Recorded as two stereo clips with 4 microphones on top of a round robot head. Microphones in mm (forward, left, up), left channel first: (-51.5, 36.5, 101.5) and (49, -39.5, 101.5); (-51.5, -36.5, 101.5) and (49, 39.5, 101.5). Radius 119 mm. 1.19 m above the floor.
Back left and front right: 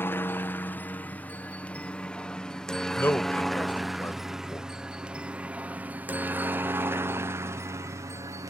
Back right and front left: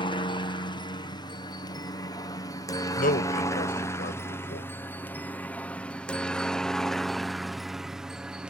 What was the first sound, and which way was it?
A helicopter, 150° right.